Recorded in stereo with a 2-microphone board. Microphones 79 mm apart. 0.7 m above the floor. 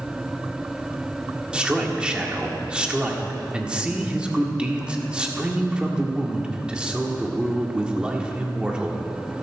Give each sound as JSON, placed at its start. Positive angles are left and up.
{"t": 1.5, "sound": "a man speaking", "side_deg": -15, "distance_m": 1.7}